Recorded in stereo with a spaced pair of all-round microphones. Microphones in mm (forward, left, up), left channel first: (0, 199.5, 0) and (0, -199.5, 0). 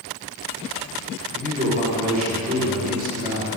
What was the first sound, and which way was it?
A man speaking, 20° right (ahead or behind).